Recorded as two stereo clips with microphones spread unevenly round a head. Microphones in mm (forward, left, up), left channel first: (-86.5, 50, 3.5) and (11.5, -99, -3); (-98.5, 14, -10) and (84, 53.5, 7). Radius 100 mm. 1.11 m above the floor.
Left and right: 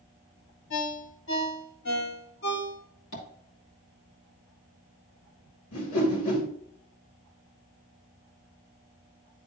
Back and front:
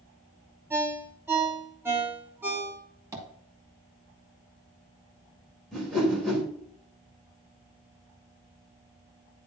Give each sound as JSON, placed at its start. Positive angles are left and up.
{"t": 0.7, "sound": "a ringtone", "azimuth_deg": 90, "distance_m": 1.5}
{"t": 3.1, "sound": "tapping", "azimuth_deg": 90, "distance_m": 2.5}
{"t": 5.7, "sound": "a whoosh", "azimuth_deg": 105, "distance_m": 2.5}